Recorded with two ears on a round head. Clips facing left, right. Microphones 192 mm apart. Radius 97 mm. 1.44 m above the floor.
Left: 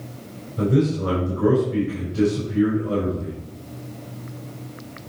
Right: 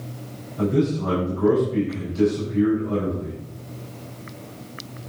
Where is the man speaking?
80° left, 5.5 m.